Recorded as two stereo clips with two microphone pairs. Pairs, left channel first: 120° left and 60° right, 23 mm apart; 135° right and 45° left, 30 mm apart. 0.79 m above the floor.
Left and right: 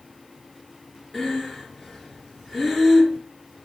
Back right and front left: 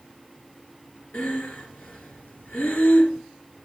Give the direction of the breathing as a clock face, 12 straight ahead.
5 o'clock.